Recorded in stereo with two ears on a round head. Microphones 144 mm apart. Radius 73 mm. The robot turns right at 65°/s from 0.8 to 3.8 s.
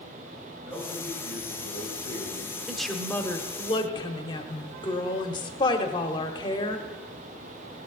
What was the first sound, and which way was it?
A man speaking, 15° left.